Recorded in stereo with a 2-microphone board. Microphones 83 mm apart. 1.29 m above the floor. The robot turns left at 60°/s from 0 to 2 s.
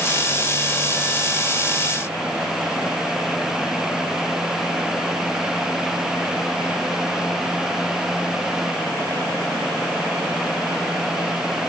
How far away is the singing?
I don't hear singing.